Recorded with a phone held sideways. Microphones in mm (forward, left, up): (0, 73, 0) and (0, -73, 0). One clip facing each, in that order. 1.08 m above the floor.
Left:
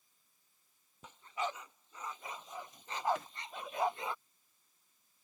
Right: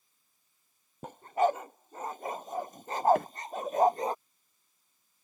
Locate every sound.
1.0 s a dog barking: 55° right (ahead or behind); by 4.2 s 45° right (ahead or behind)
3.1 s a microwave: 60° right (ahead or behind)